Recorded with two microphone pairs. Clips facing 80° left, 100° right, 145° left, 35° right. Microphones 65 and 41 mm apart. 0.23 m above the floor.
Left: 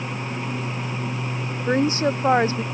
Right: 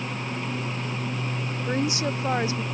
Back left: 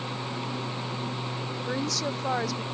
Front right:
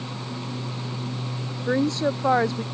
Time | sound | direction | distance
1.7 | a woman speaking | 25° left | ?